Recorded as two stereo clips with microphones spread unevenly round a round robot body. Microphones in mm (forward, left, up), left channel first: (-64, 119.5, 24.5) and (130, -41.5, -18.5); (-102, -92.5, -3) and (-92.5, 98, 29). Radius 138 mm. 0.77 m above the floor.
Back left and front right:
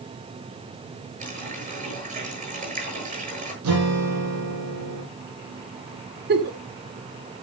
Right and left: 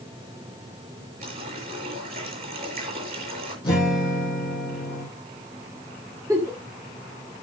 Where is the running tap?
20° left, 10 m.